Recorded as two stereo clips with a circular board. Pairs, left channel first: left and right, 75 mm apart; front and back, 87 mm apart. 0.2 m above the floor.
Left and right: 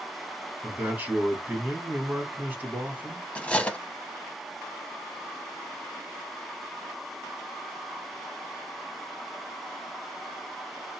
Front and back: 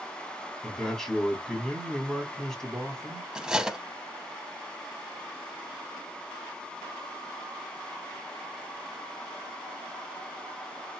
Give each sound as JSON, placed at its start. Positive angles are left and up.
{"t": 0.6, "sound": "a man speaking", "azimuth_deg": -75, "distance_m": 1.4}
{"t": 3.4, "sound": "cutlery clinking", "azimuth_deg": 120, "distance_m": 0.6}